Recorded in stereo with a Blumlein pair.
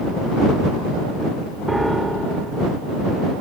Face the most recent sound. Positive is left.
turn(degrees=-5)